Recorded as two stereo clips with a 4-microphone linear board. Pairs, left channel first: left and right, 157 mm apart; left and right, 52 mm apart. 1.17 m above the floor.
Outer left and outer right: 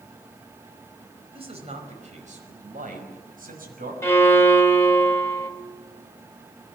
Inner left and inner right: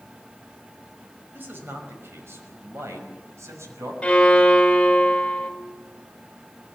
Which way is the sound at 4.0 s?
20° left (ahead or behind).